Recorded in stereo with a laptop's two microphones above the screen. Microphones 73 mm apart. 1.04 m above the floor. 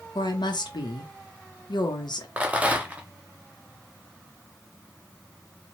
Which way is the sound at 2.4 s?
20° right (ahead or behind).